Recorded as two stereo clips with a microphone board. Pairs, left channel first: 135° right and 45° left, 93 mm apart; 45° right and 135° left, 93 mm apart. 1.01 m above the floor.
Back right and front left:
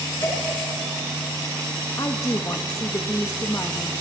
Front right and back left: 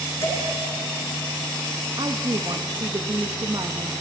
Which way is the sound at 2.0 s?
175° left.